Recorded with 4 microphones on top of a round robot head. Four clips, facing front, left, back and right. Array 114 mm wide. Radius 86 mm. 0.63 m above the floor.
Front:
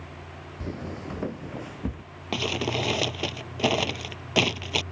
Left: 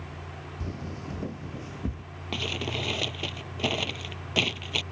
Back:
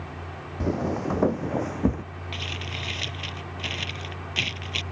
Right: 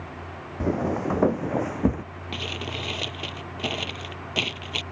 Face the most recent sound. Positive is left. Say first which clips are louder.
# left 1 dB, front 11 dB
turn(degrees=0)